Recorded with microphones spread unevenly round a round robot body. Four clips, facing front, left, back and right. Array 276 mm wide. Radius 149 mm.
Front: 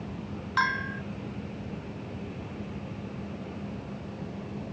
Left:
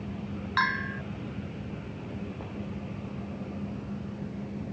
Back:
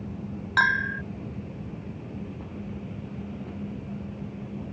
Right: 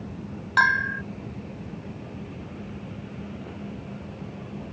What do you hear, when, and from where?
0.6 s a bell: 155° right